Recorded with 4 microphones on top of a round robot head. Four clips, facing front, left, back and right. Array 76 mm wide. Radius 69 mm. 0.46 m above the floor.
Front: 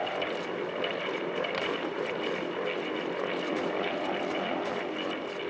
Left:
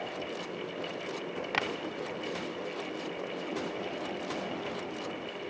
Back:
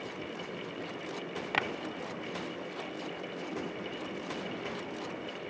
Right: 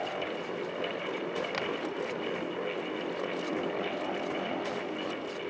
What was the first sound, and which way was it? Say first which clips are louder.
Tapping: left 2 dB, even; 145° left.